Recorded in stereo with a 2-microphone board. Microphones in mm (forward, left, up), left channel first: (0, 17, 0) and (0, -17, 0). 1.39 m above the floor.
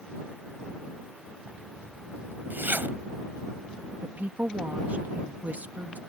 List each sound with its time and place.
1.4 s a zipper: 75° right (ahead or behind)
4.0 s a woman speaking: 55° right (ahead or behind)